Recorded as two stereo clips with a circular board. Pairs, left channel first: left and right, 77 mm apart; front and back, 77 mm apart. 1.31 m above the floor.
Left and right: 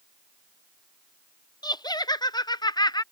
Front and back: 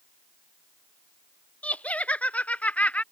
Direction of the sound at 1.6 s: 70° left.